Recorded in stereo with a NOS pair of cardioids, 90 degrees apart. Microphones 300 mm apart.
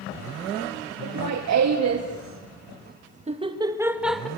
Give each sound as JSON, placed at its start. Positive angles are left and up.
{"t": 1.0, "sound": "laughter", "azimuth_deg": -65, "distance_m": 2.5}